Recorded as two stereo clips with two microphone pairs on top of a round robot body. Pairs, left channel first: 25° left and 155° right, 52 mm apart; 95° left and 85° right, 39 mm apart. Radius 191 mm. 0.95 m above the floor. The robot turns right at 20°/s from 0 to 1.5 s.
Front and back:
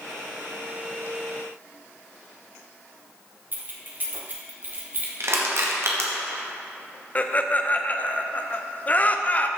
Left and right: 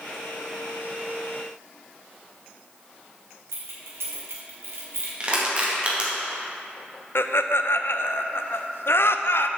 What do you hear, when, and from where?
3.5 s keys jangling: 100° right, 1.6 m
5.2 s crushing: 145° right, 2 m
7.2 s laughter: 90° left, 0.8 m